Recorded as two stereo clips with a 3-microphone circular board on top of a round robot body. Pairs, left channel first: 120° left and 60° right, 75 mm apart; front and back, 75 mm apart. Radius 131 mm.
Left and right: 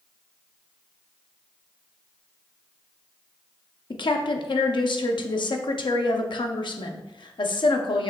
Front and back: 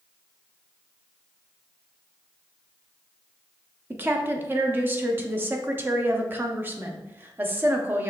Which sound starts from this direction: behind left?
A woman speaking, at 3.9 s.